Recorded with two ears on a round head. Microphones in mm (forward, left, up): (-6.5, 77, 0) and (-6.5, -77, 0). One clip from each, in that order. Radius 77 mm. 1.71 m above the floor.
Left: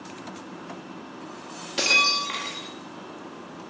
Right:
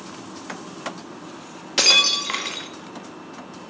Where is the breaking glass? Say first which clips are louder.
Right 4 dB; 30° right (ahead or behind), 1.2 m.